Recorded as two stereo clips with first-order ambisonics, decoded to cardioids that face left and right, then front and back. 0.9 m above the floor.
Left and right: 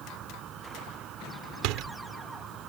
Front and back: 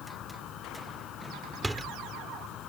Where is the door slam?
95° right.